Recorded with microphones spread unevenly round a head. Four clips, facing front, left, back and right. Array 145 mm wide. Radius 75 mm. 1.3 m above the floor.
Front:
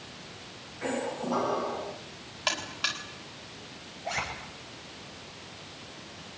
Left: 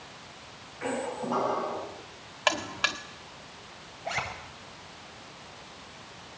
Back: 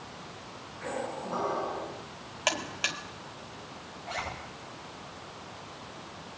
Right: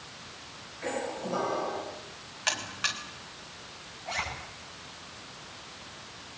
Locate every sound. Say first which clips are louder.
0.8 s a squeak: left 2 dB, front 4 dB; 55° left, 7.5 m
2.5 s a buzzer: left 6 dB, back 1 dB; 120° left, 1.6 m
4.0 s a zipper: left 2 dB, front 3 dB; 55° left, 9 m